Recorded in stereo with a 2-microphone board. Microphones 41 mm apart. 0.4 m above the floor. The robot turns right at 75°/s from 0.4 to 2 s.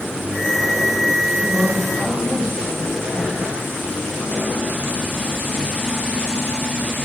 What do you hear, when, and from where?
1.4 s a woman speaking: 10° right, 1.8 m; by 3.5 s 35° left, 1.8 m